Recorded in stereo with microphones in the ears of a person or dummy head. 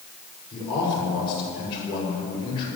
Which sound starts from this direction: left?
A man speaking, at 0.5 s.